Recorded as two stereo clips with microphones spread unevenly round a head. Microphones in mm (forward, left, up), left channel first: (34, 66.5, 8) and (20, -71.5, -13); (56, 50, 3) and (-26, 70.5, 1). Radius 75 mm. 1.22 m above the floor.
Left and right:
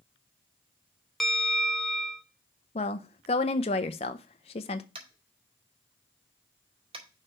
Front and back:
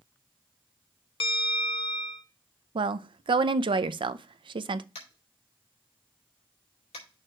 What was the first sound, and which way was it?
A bell, 5° right.